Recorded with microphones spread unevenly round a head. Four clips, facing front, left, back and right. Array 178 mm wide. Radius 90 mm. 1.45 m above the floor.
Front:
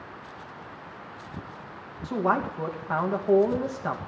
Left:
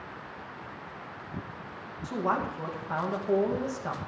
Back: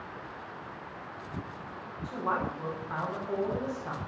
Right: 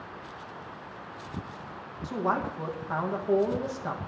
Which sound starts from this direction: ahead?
A man speaking, at 2.0 s.